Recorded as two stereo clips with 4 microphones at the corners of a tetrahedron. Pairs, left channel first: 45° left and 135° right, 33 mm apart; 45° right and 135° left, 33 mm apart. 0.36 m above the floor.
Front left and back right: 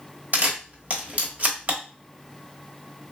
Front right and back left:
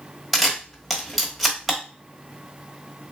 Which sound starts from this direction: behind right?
A camera shutter, at 0.3 s.